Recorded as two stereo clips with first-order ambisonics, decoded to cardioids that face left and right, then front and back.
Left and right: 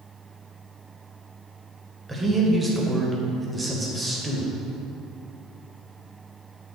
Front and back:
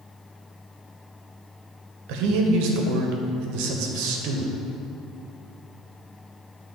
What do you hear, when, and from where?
2.1 s a man speaking: 170° right, 1.2 m